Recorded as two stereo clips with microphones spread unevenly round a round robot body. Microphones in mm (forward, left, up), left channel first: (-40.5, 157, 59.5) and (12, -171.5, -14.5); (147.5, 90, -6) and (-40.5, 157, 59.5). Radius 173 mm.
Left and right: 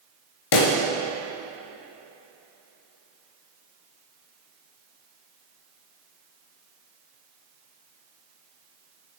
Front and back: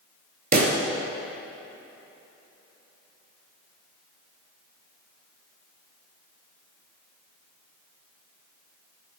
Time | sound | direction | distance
0.5 | a pop | 115° left | 1.9 m